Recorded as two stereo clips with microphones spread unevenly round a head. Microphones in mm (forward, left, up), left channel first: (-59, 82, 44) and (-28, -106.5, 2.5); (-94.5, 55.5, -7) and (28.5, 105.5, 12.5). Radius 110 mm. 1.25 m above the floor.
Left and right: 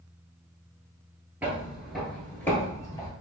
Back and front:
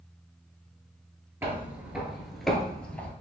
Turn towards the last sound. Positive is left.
turn(degrees=115)